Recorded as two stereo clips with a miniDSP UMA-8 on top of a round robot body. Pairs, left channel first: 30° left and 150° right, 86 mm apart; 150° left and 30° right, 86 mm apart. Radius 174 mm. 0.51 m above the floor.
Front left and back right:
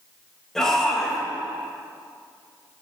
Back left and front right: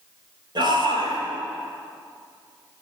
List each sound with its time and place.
0.6 s a shout: 55° right, 4 m